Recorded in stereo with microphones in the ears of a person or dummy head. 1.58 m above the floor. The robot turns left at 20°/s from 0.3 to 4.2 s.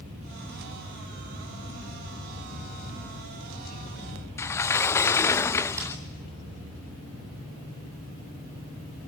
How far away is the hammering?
About 9 m.